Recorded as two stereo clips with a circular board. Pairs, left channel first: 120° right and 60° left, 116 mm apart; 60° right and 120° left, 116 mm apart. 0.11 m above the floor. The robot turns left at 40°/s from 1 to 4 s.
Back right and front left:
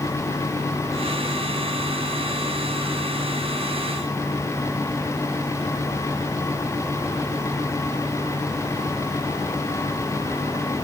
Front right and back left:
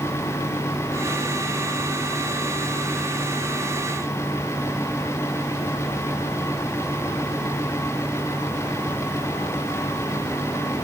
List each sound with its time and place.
Only background noise.